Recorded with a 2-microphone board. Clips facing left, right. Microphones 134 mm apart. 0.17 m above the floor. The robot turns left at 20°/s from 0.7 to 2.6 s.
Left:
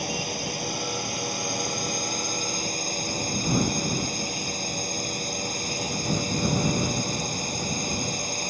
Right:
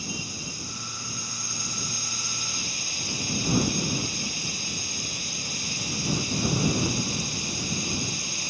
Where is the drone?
90° left; by 8.5 s 55° left.